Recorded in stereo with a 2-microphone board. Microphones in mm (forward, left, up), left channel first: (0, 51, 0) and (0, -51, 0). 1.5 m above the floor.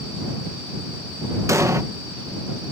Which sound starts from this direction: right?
An explosion, at 1.5 s.